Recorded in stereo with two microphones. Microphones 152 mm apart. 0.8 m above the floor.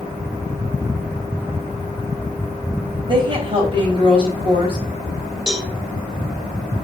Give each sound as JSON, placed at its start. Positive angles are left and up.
{"t": 3.0, "sound": "a woman speaking", "side_deg": -35, "distance_m": 3.5}
{"t": 5.5, "sound": "a cowbell", "side_deg": 0, "distance_m": 3.5}